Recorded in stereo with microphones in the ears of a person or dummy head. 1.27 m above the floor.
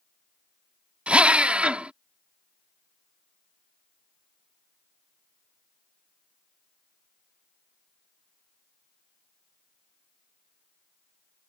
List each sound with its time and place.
1.1 s a drill: centre (ahead or behind)